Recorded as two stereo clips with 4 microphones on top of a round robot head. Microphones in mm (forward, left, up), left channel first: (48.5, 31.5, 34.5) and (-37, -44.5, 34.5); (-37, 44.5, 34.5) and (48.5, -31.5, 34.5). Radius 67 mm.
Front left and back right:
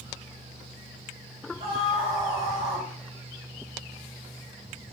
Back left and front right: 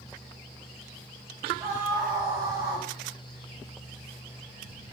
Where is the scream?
100° right, 2.5 m.